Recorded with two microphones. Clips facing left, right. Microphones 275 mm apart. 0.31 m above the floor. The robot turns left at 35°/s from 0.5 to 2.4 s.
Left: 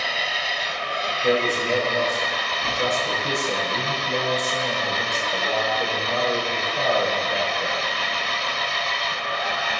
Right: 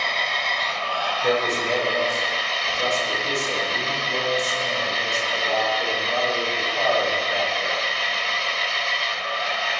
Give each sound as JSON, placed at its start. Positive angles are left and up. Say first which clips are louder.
{"t": 0.0, "sound": "an engine running", "louder": "even", "azimuth_deg": 170, "distance_m": 1.6}
{"t": 1.2, "sound": "a man speaking", "louder": "left 2 dB", "azimuth_deg": -170, "distance_m": 8.0}